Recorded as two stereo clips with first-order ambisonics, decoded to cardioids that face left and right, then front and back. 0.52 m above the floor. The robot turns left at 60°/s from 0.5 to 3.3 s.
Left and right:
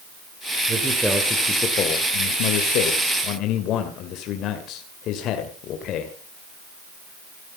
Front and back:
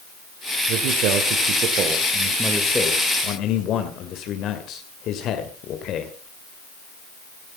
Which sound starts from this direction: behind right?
A man speaking, at 0.7 s.